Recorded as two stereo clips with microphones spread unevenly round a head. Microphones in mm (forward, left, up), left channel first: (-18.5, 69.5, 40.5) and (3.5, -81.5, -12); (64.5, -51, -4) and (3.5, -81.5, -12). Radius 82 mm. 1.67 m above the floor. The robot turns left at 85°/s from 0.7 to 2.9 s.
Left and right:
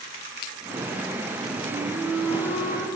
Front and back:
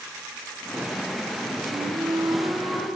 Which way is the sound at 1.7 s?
135° right.